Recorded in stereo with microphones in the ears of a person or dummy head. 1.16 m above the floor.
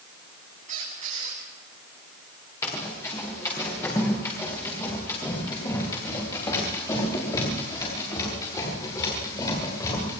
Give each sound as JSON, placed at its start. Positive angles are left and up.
{"t": 0.7, "sound": "a squeak", "side_deg": -45, "distance_m": 7.5}
{"t": 2.6, "sound": "running footsteps", "side_deg": 20, "distance_m": 9.5}